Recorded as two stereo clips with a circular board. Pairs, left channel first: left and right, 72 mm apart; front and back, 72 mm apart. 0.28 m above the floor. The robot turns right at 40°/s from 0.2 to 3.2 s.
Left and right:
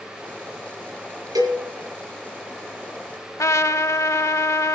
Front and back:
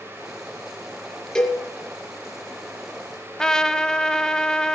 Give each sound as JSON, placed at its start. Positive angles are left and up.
{"t": 1.4, "sound": "a cowbell", "azimuth_deg": -75, "distance_m": 3.5}
{"t": 3.4, "sound": "a trumpet", "azimuth_deg": 80, "distance_m": 0.6}